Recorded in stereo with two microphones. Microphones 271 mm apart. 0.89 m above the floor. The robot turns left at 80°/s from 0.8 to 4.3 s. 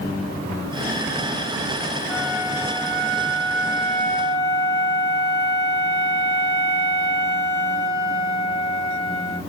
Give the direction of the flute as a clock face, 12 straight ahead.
12 o'clock.